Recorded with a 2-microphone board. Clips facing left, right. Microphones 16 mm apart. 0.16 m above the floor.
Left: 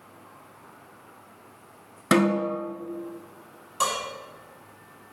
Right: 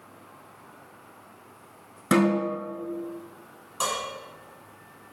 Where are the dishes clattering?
10° left (ahead or behind), 1.3 m.